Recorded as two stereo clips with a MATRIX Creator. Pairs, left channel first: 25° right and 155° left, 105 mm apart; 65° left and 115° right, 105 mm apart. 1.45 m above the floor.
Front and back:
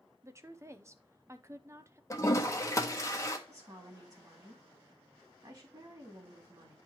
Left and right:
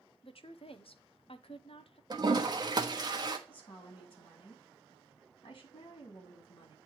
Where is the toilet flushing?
75° right, 1.1 m.